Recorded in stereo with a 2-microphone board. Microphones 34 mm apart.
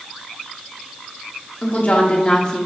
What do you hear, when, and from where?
1.6 s a woman speaking: 55° left (ahead or behind), 2.0 m; by 2.7 s 15° left (ahead or behind), 1.7 m